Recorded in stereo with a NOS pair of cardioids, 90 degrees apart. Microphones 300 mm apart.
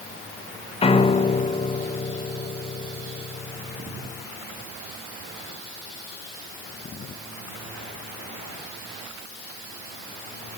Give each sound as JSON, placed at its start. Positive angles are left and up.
{"t": 0.8, "sound": "a piano", "azimuth_deg": 20, "distance_m": 1.1}